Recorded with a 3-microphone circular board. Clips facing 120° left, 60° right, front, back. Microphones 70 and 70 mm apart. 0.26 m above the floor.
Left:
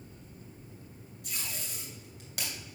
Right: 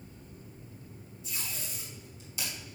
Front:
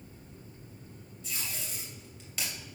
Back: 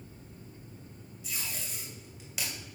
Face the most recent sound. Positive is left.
turn(degrees=100)